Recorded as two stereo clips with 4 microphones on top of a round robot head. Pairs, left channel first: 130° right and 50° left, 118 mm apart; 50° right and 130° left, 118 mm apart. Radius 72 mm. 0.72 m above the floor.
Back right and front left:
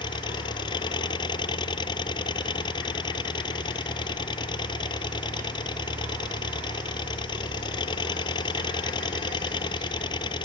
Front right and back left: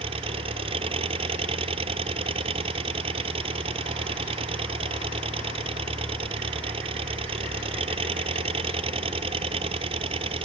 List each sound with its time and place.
0.0 s an engine running: 175° left